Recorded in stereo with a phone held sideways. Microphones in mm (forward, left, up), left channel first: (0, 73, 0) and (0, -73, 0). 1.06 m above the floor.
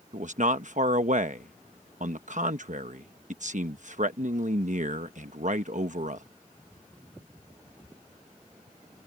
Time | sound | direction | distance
0.1 | a man speaking | 60° right (ahead or behind) | ?